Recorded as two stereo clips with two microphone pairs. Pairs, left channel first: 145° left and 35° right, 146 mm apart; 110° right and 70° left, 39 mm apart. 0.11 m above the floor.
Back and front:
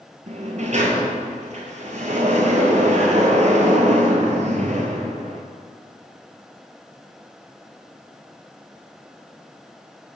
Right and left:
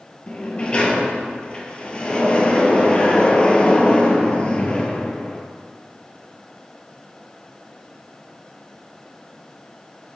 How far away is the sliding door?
About 1.1 m.